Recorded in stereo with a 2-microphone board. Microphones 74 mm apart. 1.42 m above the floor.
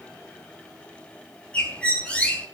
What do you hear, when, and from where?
1.5 s a bird: 20° left (ahead or behind), 3 m